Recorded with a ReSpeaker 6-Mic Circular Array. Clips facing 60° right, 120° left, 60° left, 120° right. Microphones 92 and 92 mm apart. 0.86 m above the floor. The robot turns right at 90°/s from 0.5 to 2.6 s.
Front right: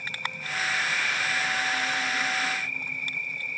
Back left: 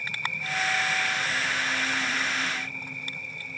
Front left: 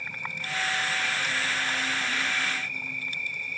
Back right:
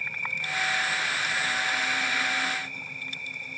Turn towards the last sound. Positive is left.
turn(degrees=180)